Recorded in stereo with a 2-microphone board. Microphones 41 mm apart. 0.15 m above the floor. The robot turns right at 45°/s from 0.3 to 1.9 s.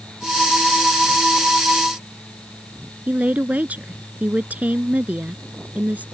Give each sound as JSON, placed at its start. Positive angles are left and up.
{"t": 3.1, "sound": "a woman speaking", "side_deg": -40}